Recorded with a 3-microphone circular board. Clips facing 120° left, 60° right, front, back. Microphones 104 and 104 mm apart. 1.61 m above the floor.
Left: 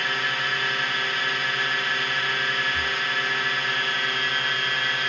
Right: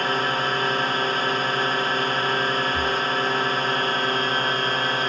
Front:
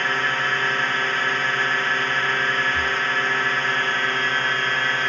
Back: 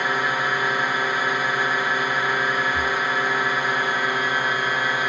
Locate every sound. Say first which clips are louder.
0.0 s a drone: right 5 dB, back 1 dB; 105° right
2.7 s breathing: right 5 dB, back 1 dB; 125° right